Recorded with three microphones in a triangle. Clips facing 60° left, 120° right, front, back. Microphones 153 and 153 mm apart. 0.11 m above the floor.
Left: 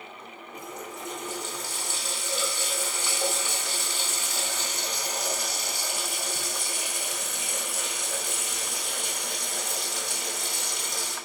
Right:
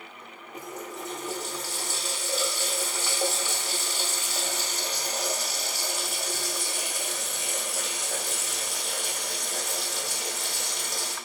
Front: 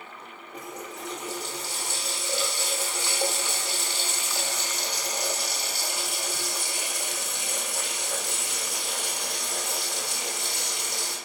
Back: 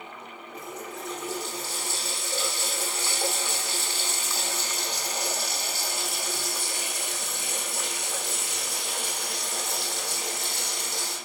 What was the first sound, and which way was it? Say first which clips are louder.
A running tap: right 2 dB, even; 75° right.